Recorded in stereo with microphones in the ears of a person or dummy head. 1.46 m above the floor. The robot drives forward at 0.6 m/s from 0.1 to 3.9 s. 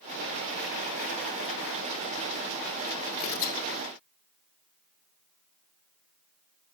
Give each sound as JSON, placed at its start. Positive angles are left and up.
{"t": 3.2, "sound": "tearing paper", "side_deg": 40, "distance_m": 0.9}